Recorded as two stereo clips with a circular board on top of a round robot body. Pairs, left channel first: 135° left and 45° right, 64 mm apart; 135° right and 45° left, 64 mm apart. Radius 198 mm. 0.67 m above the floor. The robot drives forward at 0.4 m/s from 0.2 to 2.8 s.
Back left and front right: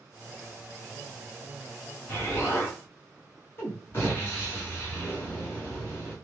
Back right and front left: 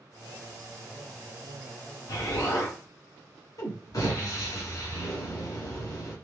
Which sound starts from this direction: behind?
An explosion, at 2.1 s.